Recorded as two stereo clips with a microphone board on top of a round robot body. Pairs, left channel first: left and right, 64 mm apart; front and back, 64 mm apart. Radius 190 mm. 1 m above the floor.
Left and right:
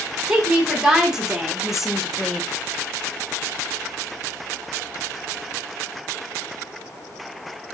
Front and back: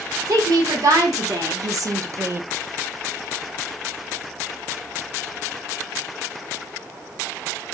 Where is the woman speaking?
165° right, 1.8 m; by 2.4 s 155° left, 0.5 m.